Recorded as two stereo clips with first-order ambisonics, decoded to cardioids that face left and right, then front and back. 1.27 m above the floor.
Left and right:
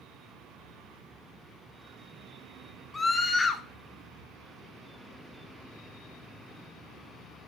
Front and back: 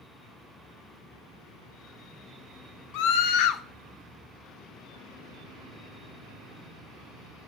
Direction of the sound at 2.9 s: 15° left.